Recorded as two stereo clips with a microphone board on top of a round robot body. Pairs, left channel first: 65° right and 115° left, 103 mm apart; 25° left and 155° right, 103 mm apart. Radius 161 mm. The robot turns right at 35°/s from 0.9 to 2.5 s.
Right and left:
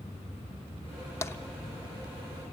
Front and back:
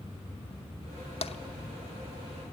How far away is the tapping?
About 0.7 m.